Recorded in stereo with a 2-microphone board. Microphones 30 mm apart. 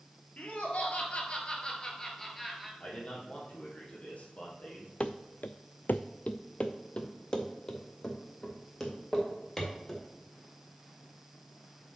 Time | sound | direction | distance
0.4 | laughter | 55° left (ahead or behind) | 2.5 m
2.8 | a man speaking | 45° left (ahead or behind) | 3.5 m
5.0 | running footsteps | 40° left (ahead or behind) | 0.7 m